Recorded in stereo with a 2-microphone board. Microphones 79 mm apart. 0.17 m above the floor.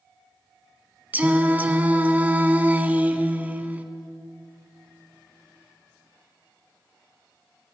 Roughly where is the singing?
Right.